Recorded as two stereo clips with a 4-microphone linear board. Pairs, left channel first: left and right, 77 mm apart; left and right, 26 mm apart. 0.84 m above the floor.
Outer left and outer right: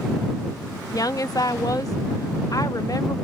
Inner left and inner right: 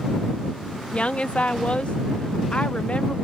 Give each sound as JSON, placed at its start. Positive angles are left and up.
{"t": 0.9, "sound": "a woman speaking", "side_deg": 50}